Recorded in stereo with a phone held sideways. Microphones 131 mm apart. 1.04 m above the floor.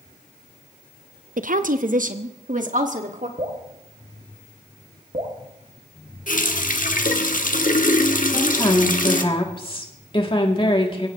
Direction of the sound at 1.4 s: 75° right (ahead or behind).